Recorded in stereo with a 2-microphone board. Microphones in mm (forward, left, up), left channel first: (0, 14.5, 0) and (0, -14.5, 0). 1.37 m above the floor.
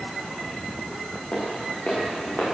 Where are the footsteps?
65° left (ahead or behind), 9 m; by 2.4 s 70° left (ahead or behind), 8.5 m.